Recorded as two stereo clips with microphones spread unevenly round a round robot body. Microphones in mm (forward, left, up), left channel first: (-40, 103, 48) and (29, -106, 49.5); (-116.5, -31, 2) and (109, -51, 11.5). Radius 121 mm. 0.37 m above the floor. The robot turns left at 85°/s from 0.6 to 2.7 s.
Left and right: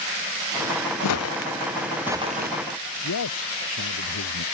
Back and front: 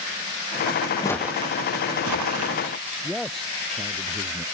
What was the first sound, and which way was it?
Footsteps, 100° left.